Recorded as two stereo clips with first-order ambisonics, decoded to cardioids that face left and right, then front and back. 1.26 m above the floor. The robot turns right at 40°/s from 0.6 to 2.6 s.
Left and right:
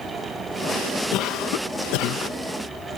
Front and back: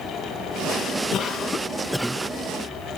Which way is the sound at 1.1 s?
55° left.